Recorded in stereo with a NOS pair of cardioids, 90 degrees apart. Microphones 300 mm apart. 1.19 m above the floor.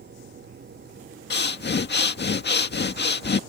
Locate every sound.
0.0 s a machine running: 35° right
1.3 s breathing: 35° left